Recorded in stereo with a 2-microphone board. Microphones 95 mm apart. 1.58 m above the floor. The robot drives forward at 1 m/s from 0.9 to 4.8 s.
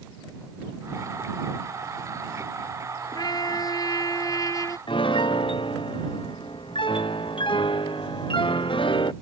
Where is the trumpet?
45° left (ahead or behind); by 4.8 s 40° left (ahead or behind).